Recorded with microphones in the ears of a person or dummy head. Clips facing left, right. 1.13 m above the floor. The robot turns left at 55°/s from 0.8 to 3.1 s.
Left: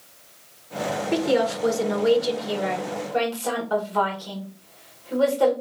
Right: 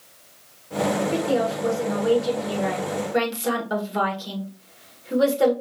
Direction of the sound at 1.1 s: 90° left.